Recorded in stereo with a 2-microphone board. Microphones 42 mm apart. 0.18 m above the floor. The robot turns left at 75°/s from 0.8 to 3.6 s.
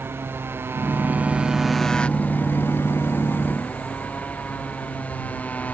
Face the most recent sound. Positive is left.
turn(degrees=40)